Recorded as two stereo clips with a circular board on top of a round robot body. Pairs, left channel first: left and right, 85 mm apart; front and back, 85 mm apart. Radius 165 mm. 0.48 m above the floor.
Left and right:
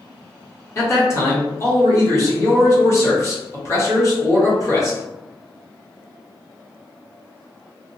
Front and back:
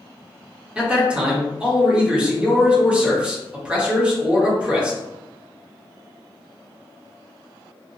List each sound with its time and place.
0.8 s a man speaking: 115° left, 1.3 m